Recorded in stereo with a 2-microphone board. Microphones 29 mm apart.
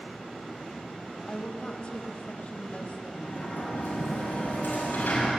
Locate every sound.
1.3 s a woman speaking: 40° left (ahead or behind), 2.0 m; by 3.8 s 55° left (ahead or behind), 3.5 m
3.1 s a sliding door: 80° left, 6.5 m